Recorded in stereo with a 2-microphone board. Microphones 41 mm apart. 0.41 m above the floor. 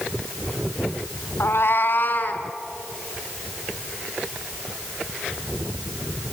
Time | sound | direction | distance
1.4 | a cat meowing | 75° left (ahead or behind) | 0.6 m